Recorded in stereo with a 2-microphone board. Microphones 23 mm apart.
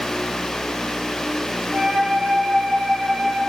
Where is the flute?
35° right (ahead or behind), 3.5 m.